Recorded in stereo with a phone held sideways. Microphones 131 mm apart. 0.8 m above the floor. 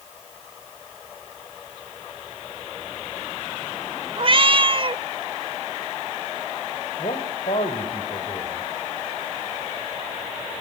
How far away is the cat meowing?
About 0.8 m.